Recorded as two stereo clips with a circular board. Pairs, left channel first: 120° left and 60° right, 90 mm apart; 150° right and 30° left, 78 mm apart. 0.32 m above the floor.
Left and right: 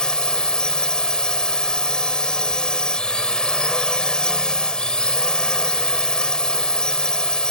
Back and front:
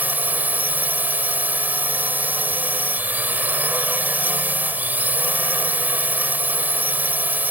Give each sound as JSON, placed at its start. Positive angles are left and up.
{"t": 0.0, "sound": "a drone", "azimuth_deg": 50}